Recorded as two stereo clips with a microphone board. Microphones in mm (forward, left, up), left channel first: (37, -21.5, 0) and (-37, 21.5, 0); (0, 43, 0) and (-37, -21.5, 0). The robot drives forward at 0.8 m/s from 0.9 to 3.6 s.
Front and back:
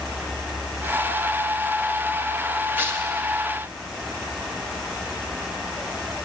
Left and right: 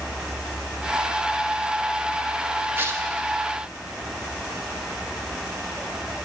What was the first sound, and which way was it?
Tearing paper, 155° right.